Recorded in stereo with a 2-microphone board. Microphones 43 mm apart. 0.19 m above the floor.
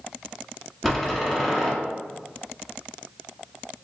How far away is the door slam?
About 1.1 m.